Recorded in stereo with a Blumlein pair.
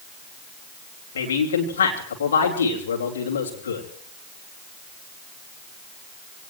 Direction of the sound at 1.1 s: 65° left.